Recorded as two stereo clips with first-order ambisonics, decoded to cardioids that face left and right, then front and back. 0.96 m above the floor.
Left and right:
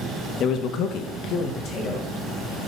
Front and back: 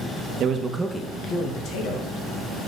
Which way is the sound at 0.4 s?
135° left.